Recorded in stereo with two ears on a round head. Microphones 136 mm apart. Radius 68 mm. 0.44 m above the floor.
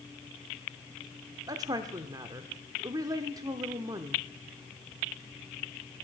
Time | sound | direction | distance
1.5 | a woman speaking | 25° right (ahead or behind) | 0.8 m